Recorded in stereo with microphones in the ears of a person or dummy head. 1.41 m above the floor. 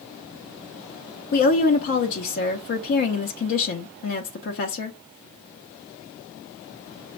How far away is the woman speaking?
About 0.7 m.